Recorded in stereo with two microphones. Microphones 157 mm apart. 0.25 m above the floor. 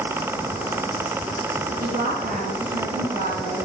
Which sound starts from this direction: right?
A woman speaking, at 1.8 s.